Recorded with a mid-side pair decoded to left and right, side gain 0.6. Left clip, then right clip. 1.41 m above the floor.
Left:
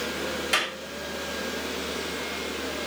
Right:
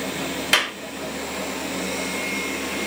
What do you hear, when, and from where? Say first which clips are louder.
0.5 s a clap: right 6 dB; 45° right, 5 m